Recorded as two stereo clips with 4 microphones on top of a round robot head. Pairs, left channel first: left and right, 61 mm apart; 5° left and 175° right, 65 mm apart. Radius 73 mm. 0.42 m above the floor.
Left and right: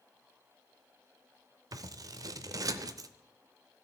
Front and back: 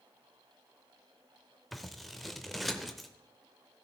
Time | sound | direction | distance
1.7 | scissors | 80° right | 0.6 m